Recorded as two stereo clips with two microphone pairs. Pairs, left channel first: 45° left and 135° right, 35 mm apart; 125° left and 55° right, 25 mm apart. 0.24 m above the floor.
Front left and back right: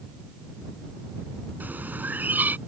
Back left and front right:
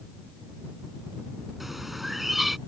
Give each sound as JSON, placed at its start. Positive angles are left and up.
{"t": 1.6, "sound": "a bird", "azimuth_deg": -135}